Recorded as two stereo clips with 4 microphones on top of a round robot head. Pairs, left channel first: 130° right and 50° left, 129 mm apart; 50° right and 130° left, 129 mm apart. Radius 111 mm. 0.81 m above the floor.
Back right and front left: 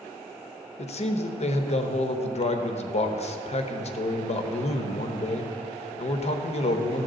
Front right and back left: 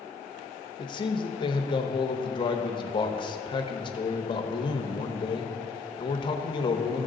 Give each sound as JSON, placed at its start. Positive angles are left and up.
{"t": 0.8, "sound": "a man speaking", "azimuth_deg": -100, "distance_m": 1.0}